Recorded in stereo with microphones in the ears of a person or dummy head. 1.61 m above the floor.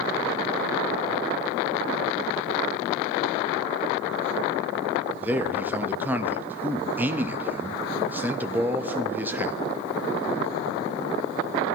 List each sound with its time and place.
5.2 s a man speaking: 10° right (ahead or behind), 0.8 m